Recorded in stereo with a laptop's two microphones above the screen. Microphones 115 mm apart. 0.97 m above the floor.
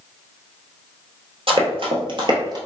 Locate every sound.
1.5 s running footsteps: 55° right (ahead or behind), 1.6 m; by 2.6 s 35° right (ahead or behind), 1.3 m